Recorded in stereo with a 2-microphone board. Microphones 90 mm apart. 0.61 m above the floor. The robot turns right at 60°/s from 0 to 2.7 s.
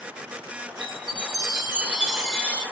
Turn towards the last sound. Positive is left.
turn(degrees=30)